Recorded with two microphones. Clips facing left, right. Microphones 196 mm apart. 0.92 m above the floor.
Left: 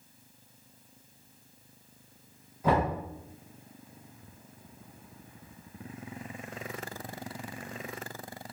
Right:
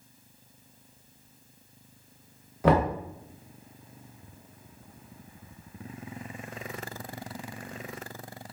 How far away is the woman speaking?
I don't hear a woman speaking.